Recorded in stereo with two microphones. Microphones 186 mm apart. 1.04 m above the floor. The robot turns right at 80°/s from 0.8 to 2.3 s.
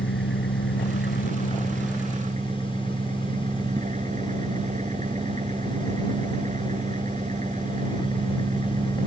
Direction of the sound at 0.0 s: 95° left.